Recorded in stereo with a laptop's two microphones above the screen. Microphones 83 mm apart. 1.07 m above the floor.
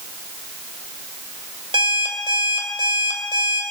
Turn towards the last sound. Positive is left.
turn(degrees=-75)  # may be behind; listen again after turning